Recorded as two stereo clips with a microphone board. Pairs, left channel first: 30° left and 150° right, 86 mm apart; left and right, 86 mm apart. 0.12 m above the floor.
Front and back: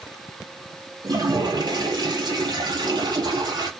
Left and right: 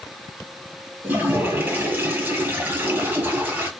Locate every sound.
1.0 s a toilet flushing: 155° right, 1.2 m